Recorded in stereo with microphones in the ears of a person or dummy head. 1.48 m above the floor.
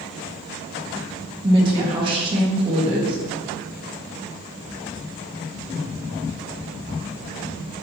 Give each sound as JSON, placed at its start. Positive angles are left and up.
{"t": 1.4, "sound": "a woman speaking", "side_deg": -30, "distance_m": 1.7}